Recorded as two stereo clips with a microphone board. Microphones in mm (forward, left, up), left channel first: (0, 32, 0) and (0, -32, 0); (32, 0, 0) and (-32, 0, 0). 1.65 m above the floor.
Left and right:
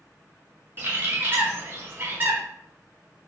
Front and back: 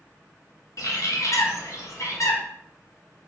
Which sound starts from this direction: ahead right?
A bird, at 0.8 s.